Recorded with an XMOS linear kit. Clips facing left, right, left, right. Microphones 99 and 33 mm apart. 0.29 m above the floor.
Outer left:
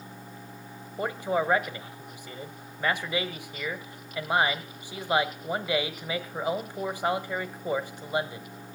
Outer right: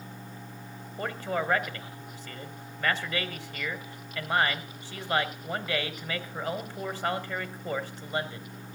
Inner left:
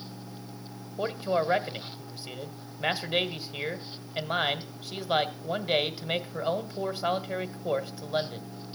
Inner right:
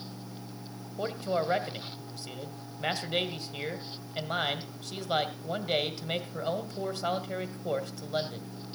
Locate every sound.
1.0 s a man speaking: 15° left (ahead or behind), 1.4 m